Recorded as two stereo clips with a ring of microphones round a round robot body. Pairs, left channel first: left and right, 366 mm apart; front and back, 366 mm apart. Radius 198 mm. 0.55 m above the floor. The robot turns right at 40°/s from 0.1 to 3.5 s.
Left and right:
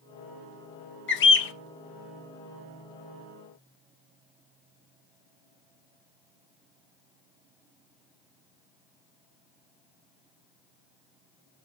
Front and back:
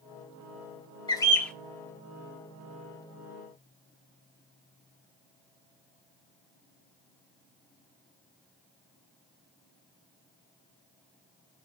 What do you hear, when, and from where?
1.1 s a bird: 70° left, 0.8 m; by 1.5 s 85° left, 0.8 m